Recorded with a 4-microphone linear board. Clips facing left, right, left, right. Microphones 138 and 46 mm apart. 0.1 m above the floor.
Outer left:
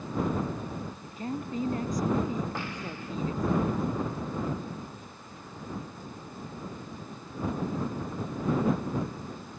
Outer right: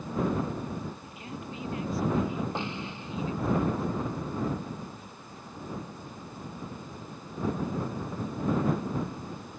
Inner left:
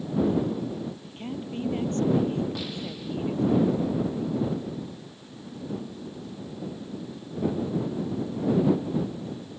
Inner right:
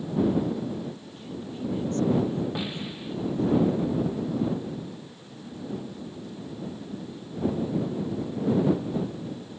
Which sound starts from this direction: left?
A woman speaking, at 1.0 s.